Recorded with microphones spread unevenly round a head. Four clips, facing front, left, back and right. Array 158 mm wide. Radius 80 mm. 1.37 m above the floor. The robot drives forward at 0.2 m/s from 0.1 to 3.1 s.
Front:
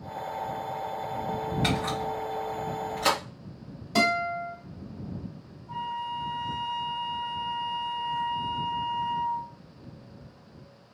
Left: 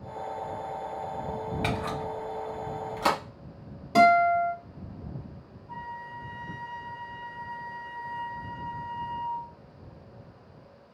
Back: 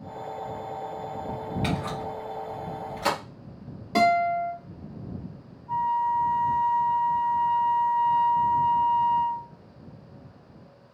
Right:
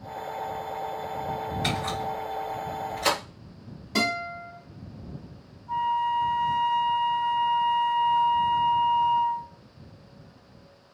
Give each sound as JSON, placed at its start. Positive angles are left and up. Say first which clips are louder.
{"t": 1.6, "sound": "a camera shutter", "louder": "right 1 dB, front 1 dB", "azimuth_deg": 85, "distance_m": 1.1}
{"t": 4.0, "sound": "a guitar", "louder": "left 11 dB, back 5 dB", "azimuth_deg": 170, "distance_m": 1.8}
{"t": 5.7, "sound": "a flute", "louder": "right 15 dB, back 9 dB", "azimuth_deg": -150, "distance_m": 0.9}